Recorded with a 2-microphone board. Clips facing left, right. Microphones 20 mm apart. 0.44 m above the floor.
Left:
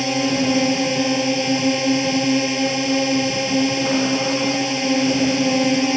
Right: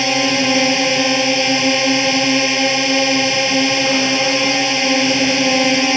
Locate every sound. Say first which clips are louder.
0.0 s a drone: right 4 dB; 30° right (ahead or behind)